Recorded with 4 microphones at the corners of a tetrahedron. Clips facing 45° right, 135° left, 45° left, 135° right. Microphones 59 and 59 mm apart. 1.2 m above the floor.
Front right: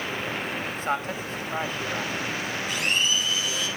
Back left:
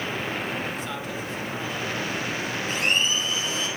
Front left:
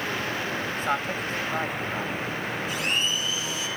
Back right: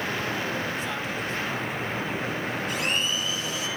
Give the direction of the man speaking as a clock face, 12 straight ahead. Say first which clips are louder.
Front right 3 dB, front left 3 dB; 12 o'clock.